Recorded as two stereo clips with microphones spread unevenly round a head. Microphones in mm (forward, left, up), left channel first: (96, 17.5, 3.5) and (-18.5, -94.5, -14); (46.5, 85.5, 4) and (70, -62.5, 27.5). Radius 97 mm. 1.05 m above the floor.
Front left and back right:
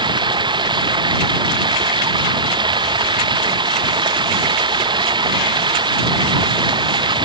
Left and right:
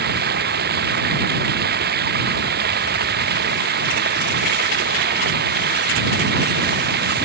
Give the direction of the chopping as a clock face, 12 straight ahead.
I don't hear chopping.